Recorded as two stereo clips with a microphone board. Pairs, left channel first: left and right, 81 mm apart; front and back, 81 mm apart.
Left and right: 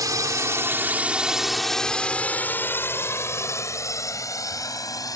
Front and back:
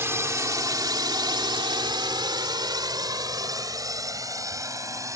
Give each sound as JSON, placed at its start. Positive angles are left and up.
{"t": 0.0, "sound": "a drone", "azimuth_deg": -125}